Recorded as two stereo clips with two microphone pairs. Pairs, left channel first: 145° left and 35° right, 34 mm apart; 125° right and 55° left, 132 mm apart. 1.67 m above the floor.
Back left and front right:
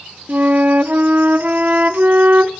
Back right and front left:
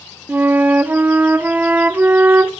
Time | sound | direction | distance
0.3 | a flute | 15° right | 0.8 m